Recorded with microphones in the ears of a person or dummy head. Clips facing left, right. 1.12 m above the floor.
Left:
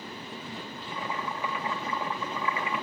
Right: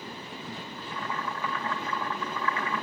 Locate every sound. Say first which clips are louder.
0.8 s boiling: even; 15° left (ahead or behind), 2 m